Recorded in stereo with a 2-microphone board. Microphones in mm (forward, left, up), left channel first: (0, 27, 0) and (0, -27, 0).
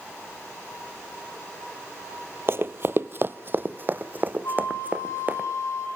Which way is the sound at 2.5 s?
50° right (ahead or behind).